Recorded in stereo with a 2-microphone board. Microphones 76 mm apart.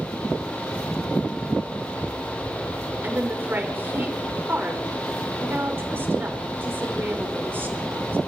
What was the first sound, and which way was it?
A woman speaking, 30° right (ahead or behind).